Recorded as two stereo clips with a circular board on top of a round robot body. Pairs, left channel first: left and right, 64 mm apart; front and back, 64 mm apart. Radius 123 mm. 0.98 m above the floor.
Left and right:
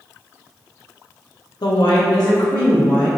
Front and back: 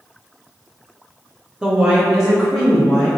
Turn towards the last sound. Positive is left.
turn(degrees=100)